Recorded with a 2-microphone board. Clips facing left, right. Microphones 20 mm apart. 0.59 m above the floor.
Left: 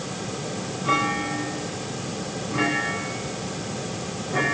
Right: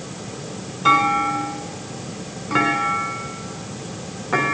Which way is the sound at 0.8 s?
70° right (ahead or behind).